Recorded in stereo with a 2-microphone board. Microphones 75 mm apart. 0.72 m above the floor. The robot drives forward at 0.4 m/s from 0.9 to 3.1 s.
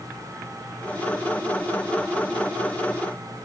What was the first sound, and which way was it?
Only background noise.